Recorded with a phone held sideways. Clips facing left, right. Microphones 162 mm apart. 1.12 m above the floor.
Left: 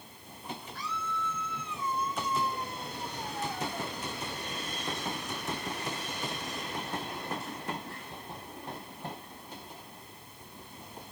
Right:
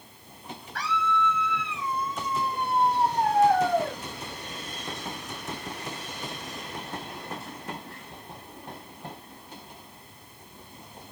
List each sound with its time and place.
0.8 s a scream: 85° right